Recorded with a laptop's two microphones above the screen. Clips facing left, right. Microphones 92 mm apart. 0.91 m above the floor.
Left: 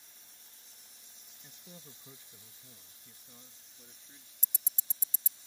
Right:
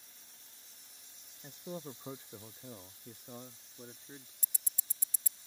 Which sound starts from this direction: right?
A man speaking, at 1.4 s.